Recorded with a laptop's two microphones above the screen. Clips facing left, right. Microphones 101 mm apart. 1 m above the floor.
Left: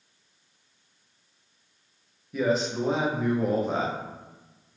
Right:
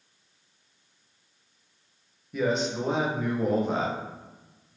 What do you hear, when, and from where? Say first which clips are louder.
2.3 s a man speaking: left 1 dB; centre (ahead or behind), 0.6 m